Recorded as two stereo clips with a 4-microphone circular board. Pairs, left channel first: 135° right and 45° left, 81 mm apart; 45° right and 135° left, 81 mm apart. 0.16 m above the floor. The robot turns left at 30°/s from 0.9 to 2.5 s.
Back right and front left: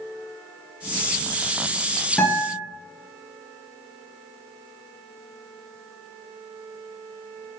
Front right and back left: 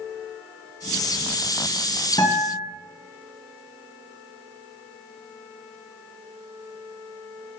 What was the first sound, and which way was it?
A guitar, 60° right.